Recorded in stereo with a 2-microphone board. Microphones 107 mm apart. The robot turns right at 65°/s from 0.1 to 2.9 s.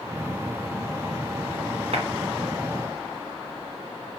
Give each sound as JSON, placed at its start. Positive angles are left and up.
{"t": 1.9, "sound": "a clap", "side_deg": -70, "distance_m": 2.5}